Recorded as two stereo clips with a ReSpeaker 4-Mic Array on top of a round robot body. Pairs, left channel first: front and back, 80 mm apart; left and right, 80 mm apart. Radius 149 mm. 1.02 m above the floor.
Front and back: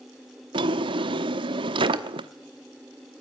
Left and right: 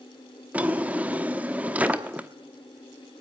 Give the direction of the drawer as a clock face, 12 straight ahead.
5 o'clock.